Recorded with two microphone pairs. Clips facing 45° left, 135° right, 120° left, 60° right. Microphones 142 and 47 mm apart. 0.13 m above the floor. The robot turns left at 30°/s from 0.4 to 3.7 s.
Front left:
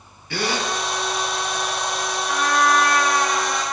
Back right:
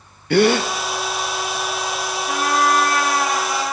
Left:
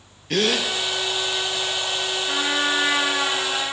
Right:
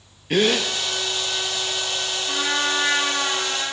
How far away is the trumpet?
About 4 m.